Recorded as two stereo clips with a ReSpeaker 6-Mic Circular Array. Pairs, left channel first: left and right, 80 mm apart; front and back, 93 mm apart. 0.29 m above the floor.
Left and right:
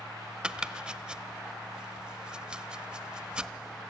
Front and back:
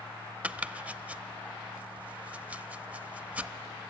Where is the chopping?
140° right, 0.6 m.